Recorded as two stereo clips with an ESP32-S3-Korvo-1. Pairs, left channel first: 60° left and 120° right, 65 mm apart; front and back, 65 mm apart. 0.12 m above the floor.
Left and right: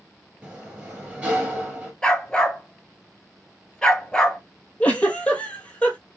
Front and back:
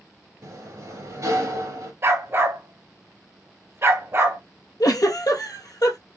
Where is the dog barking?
140° left, 0.9 m.